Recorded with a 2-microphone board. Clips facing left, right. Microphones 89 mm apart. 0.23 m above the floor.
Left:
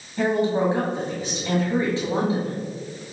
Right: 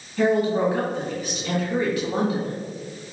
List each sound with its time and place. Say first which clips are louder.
0.2 s a woman speaking: right 1 dB; 30° left (ahead or behind), 1.7 m